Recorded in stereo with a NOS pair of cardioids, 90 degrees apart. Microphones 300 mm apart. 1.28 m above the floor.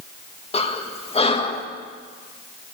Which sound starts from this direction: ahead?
Breathing, at 0.5 s.